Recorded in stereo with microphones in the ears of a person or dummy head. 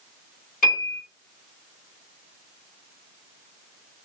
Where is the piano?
45° left (ahead or behind), 1.9 m.